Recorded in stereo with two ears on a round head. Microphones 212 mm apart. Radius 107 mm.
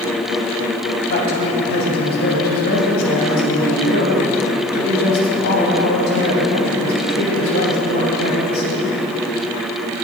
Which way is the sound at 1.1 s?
45° left (ahead or behind).